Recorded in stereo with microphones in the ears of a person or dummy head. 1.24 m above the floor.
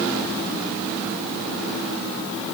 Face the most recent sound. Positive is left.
No sound to turn to.